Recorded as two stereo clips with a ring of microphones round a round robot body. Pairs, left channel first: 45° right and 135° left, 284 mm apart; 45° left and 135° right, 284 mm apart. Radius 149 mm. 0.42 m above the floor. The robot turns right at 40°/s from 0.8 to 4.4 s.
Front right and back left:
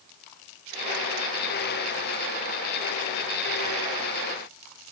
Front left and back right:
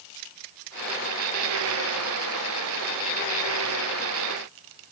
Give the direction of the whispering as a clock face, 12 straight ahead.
No whispering in this recording.